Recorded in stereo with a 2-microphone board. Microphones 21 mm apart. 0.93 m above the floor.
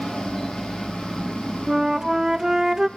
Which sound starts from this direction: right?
A flute, at 1.7 s.